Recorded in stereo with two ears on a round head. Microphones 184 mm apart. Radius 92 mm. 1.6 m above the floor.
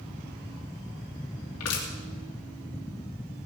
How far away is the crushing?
About 3 m.